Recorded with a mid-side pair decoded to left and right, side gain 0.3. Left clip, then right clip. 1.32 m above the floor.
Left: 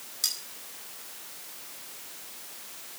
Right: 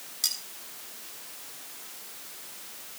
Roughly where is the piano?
I don't hear a piano.